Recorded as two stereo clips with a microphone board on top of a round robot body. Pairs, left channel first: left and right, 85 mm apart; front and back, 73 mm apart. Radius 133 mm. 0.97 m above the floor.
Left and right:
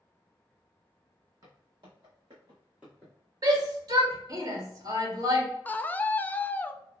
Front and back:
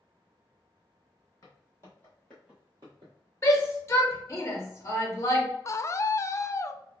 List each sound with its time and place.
1.4 s footsteps: 45° right, 1.9 m; by 3.1 s 170° left, 1.3 m
3.4 s a shout: 50° right, 1.6 m
5.7 s a scream: 25° left, 0.5 m